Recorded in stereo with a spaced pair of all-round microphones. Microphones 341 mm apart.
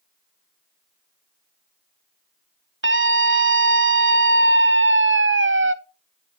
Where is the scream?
35° right (ahead or behind), 0.7 m.